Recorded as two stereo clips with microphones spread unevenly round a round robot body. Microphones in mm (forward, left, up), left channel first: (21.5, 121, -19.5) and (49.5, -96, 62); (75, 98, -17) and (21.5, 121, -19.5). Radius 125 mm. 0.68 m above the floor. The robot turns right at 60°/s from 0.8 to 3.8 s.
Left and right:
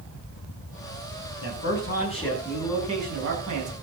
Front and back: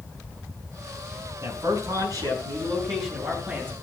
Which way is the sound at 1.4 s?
120° left.